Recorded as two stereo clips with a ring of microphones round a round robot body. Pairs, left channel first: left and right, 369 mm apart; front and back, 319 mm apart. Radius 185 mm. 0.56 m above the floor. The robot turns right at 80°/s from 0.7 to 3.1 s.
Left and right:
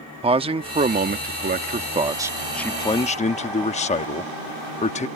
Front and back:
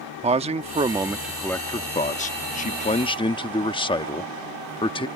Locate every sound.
0.2 s a man speaking: 140° right; by 5.1 s 50° left